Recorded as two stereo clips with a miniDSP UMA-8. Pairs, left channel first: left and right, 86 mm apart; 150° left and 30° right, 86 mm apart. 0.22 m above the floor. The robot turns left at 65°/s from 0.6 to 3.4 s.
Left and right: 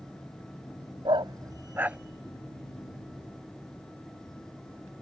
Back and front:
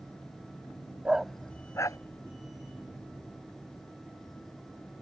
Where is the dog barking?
110° right; by 2.0 s 170° right.